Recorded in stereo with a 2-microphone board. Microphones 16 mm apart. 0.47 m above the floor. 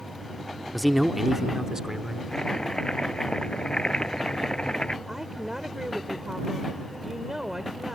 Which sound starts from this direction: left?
Chopping, at 2.3 s.